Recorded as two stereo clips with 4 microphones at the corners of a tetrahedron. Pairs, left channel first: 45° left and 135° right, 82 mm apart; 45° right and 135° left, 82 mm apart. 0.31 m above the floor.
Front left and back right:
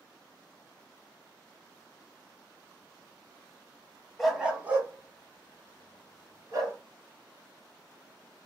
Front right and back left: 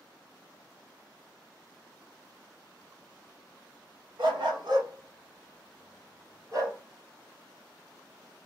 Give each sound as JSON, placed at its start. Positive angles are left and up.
{"t": 4.2, "sound": "a dog barking", "azimuth_deg": 135, "distance_m": 0.6}